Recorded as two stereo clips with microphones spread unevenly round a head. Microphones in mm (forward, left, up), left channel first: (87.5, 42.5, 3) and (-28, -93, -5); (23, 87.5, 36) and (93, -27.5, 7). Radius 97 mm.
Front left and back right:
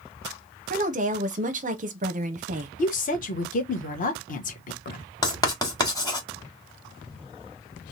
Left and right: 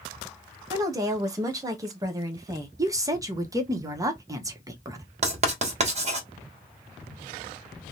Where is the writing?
20° right, 1.6 m.